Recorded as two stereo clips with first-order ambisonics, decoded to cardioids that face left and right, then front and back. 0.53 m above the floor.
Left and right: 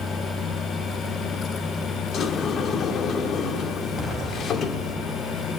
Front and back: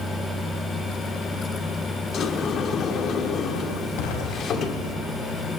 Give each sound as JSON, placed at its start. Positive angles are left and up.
{"t": 2.1, "sound": "a sliding door", "azimuth_deg": 40, "distance_m": 1.2}
{"t": 4.0, "sound": "an explosion", "azimuth_deg": 15, "distance_m": 4.0}